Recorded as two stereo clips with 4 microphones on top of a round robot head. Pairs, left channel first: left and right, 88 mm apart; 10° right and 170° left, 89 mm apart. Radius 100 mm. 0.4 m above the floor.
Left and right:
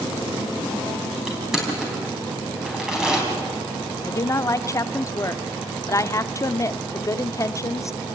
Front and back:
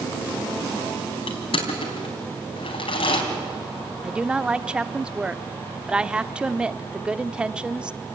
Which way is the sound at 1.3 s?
5° right.